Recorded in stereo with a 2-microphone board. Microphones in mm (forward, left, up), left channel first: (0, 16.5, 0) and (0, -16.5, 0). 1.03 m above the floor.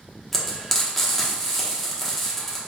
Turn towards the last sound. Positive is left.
turn(degrees=10)  # may be behind; listen again after turning